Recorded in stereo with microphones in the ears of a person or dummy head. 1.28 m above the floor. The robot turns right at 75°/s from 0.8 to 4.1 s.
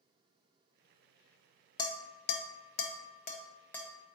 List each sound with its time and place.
1.8 s dishes clattering: 25° left (ahead or behind), 0.5 m; by 4.2 s 20° right (ahead or behind), 0.5 m